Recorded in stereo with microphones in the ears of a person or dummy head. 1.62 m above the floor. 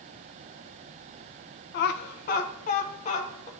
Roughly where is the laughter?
Left.